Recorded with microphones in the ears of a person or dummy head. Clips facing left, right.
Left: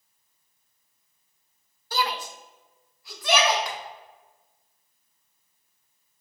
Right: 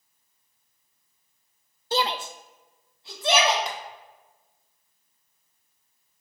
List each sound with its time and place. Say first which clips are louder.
1.9 s a shout: right 2 dB; 20° right (ahead or behind), 0.5 m; by 3.6 s 25° right (ahead or behind), 2.5 m
3.7 s tapping: right 1 dB; 25° right (ahead or behind), 1.4 m